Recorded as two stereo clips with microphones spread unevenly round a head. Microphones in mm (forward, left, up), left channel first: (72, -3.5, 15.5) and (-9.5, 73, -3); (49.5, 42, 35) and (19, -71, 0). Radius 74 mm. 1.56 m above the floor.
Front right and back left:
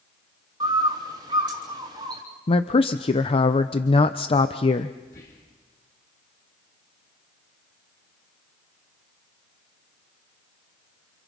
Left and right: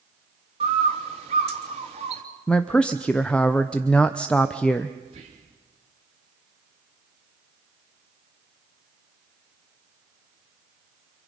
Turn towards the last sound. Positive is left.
turn(degrees=-70)